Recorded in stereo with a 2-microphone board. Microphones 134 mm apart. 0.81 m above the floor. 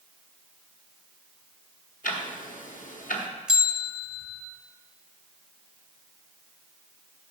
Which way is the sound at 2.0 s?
85° left.